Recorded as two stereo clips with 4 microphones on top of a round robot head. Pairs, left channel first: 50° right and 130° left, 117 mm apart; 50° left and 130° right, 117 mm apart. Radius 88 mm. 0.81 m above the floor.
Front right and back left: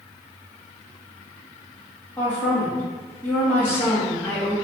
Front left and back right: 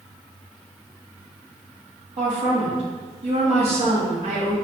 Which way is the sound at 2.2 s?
120° right.